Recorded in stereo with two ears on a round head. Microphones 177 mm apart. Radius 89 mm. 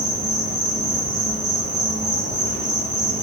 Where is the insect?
60° right (ahead or behind), 1.3 m.